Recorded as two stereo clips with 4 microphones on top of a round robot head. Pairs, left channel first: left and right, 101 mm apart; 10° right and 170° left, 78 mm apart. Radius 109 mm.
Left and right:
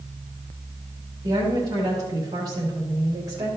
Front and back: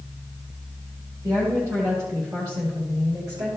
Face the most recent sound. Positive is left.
turn(degrees=-145)